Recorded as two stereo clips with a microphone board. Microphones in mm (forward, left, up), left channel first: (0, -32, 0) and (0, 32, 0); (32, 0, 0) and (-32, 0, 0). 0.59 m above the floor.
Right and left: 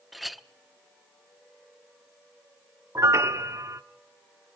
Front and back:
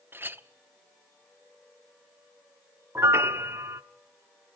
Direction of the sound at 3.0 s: 130° left.